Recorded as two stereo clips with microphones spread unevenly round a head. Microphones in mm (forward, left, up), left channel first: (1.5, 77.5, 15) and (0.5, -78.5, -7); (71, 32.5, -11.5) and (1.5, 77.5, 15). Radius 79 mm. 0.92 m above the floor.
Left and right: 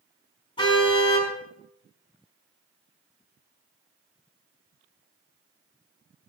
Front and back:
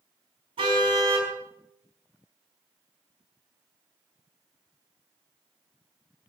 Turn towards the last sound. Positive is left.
turn(degrees=150)